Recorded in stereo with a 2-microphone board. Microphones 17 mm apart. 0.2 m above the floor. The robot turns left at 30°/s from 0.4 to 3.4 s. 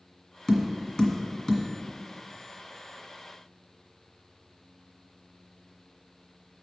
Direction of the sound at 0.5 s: 35° left (ahead or behind).